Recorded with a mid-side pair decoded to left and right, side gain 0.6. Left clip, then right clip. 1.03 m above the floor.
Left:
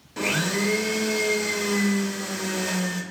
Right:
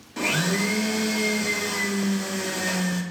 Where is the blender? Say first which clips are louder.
Even; 5° right, 0.6 m.